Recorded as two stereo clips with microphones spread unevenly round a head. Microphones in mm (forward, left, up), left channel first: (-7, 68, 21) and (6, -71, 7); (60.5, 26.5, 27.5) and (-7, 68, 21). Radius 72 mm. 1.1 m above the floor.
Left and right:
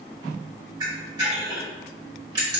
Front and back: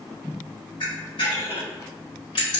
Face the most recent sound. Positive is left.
turn(degrees=-25)